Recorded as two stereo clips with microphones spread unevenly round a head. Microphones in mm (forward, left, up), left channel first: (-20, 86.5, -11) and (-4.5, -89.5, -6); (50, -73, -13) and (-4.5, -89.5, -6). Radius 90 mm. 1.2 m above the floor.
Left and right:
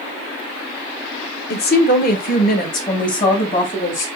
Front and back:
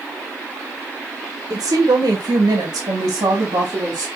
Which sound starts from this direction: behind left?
A woman speaking, at 1.5 s.